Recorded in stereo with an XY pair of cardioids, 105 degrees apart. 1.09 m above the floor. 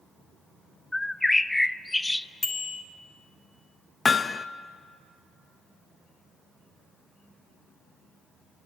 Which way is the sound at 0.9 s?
10° left.